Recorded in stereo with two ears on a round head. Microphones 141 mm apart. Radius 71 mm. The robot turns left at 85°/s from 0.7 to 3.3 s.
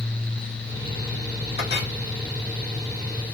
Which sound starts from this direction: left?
A clink, at 1.6 s.